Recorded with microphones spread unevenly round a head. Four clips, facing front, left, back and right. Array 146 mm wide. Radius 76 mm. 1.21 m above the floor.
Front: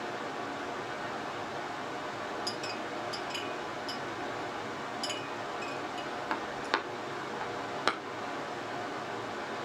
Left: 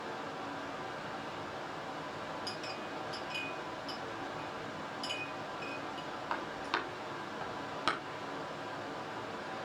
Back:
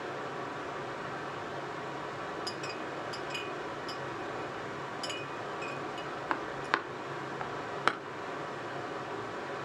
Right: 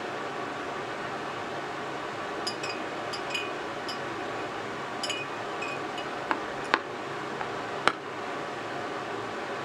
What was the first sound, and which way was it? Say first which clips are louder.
Running water: right 7 dB, front 1 dB; 75° right.